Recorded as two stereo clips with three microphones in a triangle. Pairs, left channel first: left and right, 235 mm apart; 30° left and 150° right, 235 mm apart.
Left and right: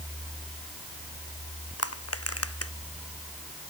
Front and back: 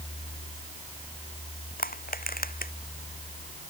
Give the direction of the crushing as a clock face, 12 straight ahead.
9 o'clock.